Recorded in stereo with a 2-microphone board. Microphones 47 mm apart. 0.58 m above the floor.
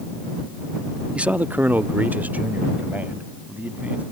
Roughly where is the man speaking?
Right.